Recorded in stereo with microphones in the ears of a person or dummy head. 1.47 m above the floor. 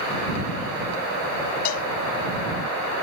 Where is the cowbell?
55° left (ahead or behind).